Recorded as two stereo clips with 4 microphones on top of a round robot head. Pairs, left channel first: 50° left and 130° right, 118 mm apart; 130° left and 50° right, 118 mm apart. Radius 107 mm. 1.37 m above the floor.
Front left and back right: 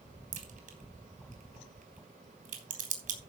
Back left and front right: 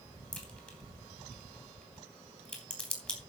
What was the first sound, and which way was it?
A crack, 150° right.